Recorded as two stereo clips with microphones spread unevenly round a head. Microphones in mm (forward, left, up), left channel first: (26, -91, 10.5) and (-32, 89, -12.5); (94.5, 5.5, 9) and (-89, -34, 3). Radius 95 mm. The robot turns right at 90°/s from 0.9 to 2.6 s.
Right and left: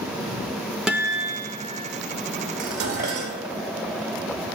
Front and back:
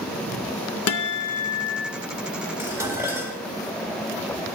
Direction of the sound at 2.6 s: 115° left.